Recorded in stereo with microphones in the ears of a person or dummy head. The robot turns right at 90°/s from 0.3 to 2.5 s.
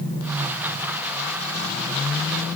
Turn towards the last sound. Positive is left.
No sound to turn to.